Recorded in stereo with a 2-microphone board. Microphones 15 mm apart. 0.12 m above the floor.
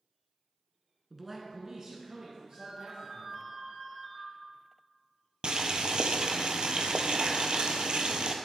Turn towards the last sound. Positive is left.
turn(degrees=-70)  # may be behind; listen again after turning